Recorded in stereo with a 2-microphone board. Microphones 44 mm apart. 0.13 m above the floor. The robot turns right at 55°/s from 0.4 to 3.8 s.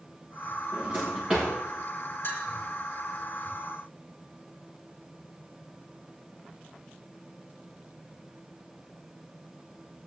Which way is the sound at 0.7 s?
50° right (ahead or behind).